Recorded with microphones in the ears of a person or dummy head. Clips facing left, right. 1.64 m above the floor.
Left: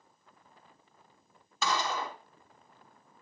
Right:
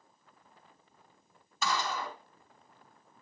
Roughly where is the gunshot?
Left.